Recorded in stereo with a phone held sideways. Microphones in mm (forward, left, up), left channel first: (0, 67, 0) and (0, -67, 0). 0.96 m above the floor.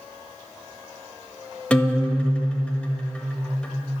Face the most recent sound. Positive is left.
turn(degrees=10)  # may be behind; listen again after turning